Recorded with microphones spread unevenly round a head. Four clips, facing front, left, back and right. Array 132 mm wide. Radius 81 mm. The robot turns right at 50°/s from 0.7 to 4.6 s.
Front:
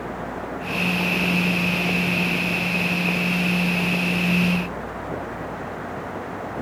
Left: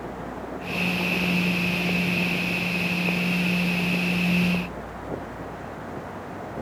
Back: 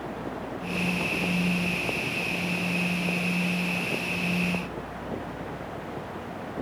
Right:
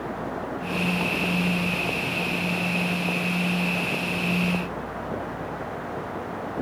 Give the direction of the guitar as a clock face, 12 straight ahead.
No guitar in this recording.